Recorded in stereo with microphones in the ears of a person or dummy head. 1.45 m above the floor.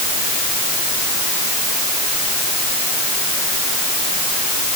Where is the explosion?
No explosion in this recording.